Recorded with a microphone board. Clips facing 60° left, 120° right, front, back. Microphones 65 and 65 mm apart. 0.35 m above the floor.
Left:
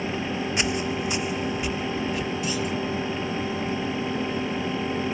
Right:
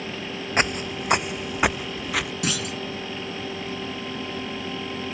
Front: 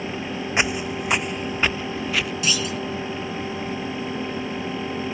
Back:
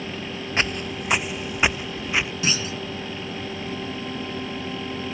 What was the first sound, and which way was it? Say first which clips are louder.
Footsteps: right 5 dB, front 2 dB; 75° right.